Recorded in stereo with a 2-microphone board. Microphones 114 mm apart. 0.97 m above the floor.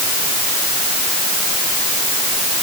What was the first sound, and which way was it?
Only background noise.